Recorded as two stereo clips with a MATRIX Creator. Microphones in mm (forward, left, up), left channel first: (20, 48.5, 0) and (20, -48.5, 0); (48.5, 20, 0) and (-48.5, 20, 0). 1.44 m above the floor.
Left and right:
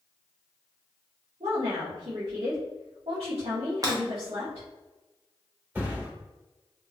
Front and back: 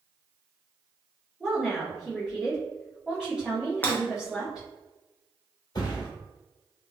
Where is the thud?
25° right, 1.5 m.